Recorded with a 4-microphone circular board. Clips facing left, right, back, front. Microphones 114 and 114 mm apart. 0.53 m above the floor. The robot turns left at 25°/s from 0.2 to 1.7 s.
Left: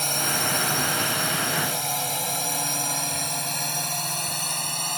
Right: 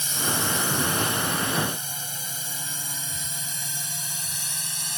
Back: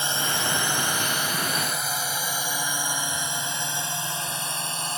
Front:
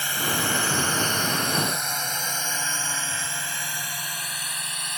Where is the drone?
115° left; by 5.0 s 120° left.